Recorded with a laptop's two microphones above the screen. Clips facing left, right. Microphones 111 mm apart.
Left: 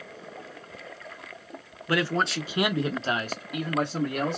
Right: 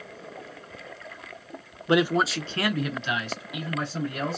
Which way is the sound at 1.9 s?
25° right (ahead or behind).